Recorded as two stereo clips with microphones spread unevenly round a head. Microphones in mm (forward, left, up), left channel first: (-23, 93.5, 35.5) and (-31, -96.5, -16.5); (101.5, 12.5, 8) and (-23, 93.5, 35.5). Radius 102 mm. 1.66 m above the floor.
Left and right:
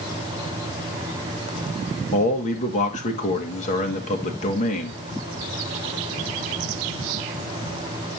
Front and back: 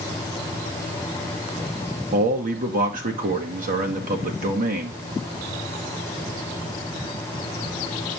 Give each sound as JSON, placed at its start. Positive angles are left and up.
{"t": 2.1, "sound": "a man speaking", "azimuth_deg": 130, "distance_m": 1.6}